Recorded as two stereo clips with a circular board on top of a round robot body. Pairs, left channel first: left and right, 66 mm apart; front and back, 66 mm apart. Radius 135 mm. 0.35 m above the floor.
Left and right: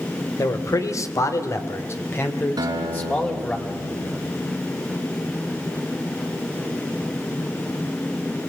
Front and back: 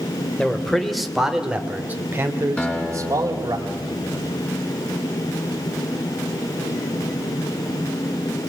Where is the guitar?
70° right, 4 m.